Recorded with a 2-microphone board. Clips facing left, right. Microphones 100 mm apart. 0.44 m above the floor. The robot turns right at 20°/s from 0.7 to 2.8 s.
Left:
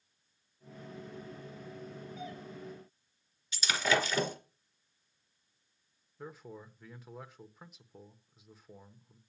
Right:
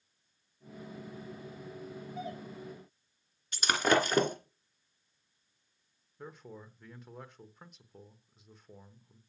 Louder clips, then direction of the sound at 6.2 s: Left 1 dB; centre (ahead or behind).